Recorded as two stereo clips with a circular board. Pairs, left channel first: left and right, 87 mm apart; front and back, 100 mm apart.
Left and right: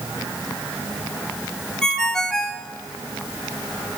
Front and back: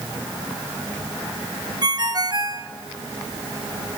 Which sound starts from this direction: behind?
A ringtone, at 1.8 s.